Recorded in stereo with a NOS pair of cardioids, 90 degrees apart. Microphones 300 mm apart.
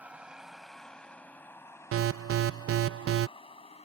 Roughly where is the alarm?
Ahead right.